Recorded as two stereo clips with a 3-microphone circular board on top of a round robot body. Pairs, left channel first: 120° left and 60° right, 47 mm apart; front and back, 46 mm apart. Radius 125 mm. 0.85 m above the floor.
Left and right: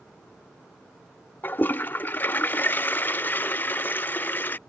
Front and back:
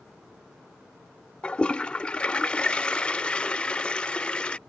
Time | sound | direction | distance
1.4 | a toilet flushing | 70° left | ?